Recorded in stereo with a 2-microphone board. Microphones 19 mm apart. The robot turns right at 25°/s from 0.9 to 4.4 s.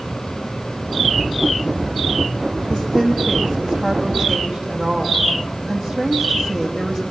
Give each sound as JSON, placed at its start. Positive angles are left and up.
{"t": 2.7, "sound": "a woman speaking", "azimuth_deg": -165, "distance_m": 3.0}